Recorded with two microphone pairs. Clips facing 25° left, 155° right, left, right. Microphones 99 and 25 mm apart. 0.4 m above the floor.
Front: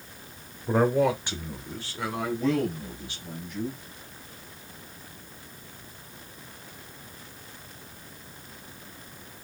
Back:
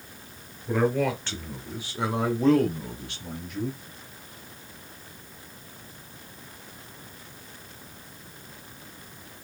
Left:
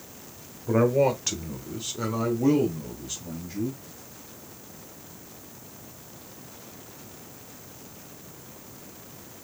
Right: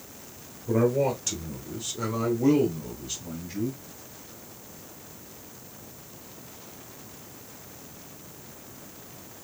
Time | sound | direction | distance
0.7 | a man speaking | 55° left | 1.2 m